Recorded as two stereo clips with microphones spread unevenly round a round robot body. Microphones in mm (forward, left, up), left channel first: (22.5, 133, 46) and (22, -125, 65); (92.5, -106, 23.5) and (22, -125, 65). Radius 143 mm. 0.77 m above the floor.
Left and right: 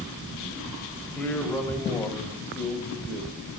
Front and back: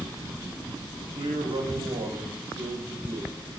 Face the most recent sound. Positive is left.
turn(degrees=170)